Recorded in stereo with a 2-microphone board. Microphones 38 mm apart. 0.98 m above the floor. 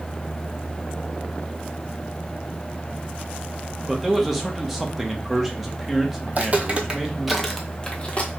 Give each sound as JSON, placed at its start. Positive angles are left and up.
{"t": 3.9, "sound": "a man speaking", "side_deg": 0, "distance_m": 1.0}
{"t": 6.3, "sound": "footsteps", "side_deg": -45, "distance_m": 1.3}